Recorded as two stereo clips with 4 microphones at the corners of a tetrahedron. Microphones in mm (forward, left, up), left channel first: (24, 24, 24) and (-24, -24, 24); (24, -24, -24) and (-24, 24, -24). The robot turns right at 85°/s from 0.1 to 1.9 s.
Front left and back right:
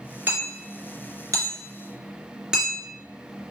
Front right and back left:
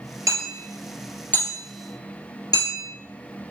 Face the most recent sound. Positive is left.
turn(degrees=-55)